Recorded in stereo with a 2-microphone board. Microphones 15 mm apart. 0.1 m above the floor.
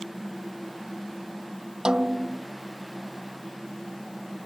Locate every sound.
1.9 s a snare drum: 50° right (ahead or behind)